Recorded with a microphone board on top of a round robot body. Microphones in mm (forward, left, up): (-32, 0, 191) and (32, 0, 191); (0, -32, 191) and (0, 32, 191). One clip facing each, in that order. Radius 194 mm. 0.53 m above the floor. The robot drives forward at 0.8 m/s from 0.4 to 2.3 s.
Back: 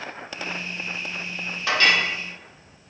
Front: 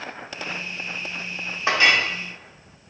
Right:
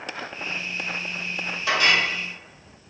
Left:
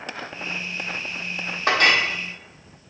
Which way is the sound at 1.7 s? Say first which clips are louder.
Front 2 dB, left 2 dB; 60° left.